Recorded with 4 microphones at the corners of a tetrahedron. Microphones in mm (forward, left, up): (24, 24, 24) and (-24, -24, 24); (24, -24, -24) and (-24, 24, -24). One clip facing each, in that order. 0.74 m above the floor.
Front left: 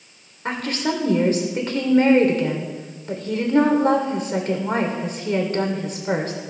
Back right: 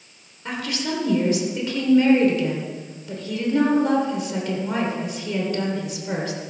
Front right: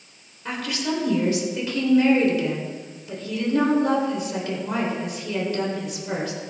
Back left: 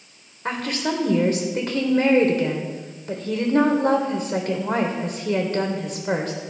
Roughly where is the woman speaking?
Left.